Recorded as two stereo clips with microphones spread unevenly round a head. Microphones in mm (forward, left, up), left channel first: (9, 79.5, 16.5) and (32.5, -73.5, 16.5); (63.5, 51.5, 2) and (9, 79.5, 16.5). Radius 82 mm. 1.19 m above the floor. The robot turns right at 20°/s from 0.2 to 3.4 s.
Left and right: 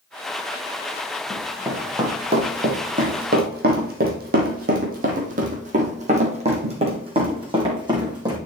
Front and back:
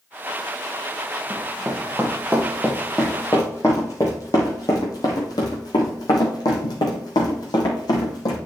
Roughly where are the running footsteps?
Behind.